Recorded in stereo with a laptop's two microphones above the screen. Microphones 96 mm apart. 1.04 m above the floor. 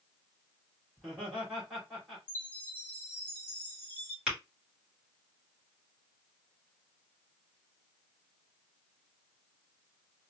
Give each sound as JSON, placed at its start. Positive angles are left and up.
{"t": 1.0, "sound": "laughter", "side_deg": -10, "distance_m": 2.0}
{"t": 2.3, "sound": "a chime", "side_deg": 20, "distance_m": 1.4}
{"t": 4.3, "sound": "tapping", "side_deg": -10, "distance_m": 2.5}